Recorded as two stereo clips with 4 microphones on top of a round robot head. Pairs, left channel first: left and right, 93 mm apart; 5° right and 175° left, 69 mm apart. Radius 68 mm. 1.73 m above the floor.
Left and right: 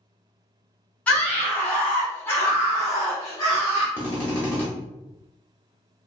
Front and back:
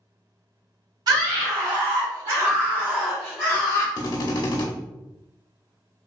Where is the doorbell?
No doorbell in this recording.